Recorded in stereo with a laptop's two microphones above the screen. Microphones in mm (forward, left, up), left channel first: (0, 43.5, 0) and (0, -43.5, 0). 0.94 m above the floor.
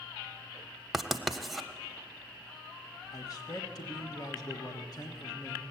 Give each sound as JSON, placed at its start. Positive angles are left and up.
{"t": 0.9, "sound": "writing", "side_deg": 0, "distance_m": 0.7}
{"t": 3.1, "sound": "a man speaking", "side_deg": 45, "distance_m": 1.2}